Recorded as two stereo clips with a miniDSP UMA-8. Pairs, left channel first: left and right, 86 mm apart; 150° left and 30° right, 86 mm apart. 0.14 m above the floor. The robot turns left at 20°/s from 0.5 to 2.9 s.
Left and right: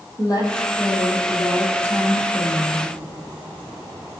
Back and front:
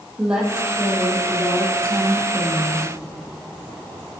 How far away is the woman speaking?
About 3.5 m.